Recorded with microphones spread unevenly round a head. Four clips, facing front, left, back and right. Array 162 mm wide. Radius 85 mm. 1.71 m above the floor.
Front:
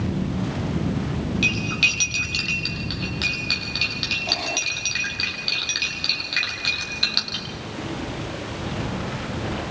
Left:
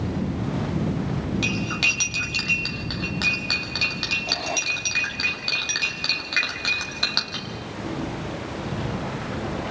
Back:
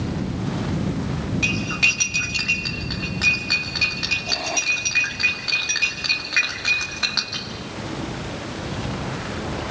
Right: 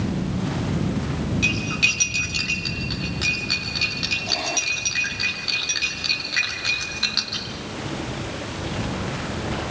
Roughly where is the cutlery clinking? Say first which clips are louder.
Right 1 dB, back 1 dB; left.